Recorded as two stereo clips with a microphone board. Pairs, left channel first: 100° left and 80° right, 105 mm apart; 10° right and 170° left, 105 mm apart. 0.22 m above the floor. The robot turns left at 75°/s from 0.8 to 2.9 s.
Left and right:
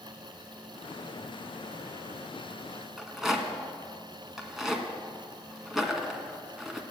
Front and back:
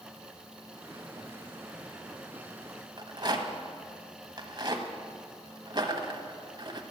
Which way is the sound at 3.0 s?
165° right.